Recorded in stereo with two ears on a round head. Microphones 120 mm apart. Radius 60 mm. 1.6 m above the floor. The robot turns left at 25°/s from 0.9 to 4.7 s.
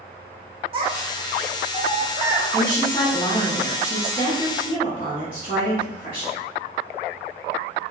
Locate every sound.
0.7 s a child speaking: 45° right (ahead or behind), 0.5 m; by 2.4 s 20° right (ahead or behind), 0.5 m
2.5 s a woman speaking: 170° left, 1.0 m; by 6.4 s 115° left, 1.0 m